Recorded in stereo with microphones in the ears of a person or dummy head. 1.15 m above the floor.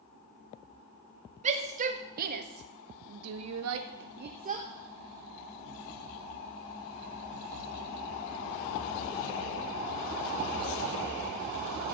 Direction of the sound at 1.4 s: 35° right (ahead or behind).